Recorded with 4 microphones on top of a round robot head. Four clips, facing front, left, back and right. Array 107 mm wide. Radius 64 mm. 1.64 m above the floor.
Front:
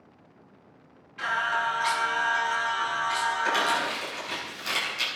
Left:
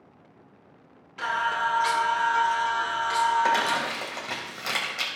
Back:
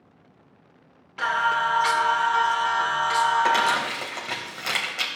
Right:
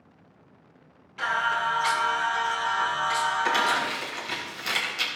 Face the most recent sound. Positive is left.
turn(degrees=140)